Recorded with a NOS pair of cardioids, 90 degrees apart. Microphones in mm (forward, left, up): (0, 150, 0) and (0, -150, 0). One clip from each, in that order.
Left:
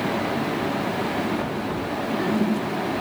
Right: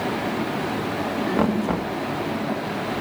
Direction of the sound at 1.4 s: 55° right.